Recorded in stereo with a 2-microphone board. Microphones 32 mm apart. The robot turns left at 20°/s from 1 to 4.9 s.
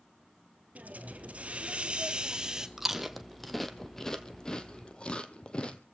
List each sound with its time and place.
0.8 s a hiss: 125° right, 1.5 m; by 2.7 s 160° right, 1.5 m
2.8 s chewing: 10° right (ahead or behind), 1.5 m; by 5.8 s 30° left (ahead or behind), 1.5 m